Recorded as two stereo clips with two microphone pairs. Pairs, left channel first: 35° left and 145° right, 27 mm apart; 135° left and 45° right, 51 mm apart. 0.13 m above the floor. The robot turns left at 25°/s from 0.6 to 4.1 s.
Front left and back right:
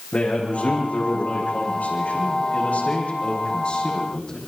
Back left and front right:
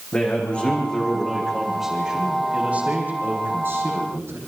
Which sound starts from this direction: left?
A man speaking, at 0.1 s.